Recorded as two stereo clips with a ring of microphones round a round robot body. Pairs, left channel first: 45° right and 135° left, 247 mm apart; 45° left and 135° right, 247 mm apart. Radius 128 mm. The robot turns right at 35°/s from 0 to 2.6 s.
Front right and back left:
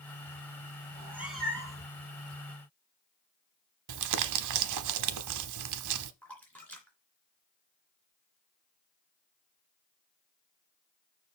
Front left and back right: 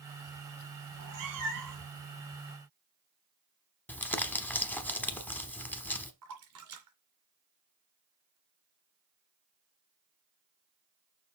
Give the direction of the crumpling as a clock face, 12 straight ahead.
8 o'clock.